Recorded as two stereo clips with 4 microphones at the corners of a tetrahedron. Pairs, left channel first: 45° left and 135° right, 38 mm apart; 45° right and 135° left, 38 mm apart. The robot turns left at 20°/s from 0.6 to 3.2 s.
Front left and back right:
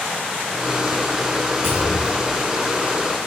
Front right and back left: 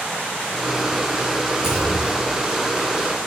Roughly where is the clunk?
Right.